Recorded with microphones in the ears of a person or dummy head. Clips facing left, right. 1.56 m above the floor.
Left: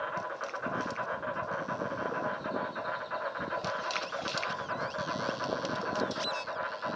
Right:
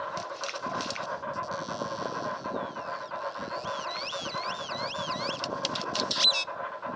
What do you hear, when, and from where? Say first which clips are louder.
0.0 s an insect: right 1 dB; 25° left (ahead or behind), 2.5 m